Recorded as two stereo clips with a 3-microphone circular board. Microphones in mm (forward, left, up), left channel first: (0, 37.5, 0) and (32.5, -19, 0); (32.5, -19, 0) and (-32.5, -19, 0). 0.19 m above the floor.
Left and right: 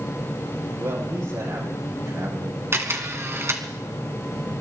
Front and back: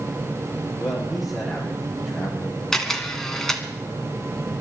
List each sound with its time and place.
0.8 s a man speaking: 95° right, 7 m
2.7 s a camera shutter: 80° right, 1.9 m